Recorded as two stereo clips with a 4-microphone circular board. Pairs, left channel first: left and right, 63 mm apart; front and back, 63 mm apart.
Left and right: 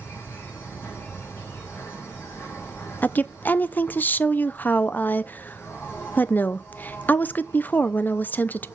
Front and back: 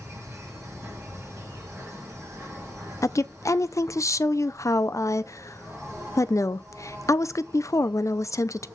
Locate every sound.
0.0 s an insect: 140° left, 3 m
3.0 s a woman speaking: 30° left, 0.5 m